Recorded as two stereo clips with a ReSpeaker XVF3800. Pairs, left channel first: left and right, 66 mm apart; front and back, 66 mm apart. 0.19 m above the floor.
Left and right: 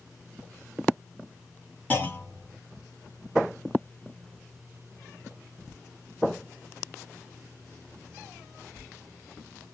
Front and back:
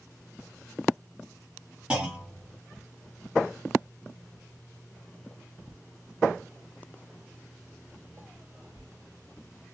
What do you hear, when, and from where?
1.9 s a clunk: 120° left, 1.1 m